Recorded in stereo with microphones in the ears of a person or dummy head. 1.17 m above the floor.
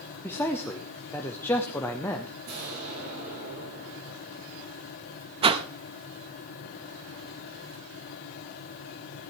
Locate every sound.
0.2 s a man speaking: 15° left (ahead or behind), 1.0 m
2.5 s an explosion: 55° right (ahead or behind), 5 m
5.4 s a whoosh: 30° right (ahead or behind), 0.8 m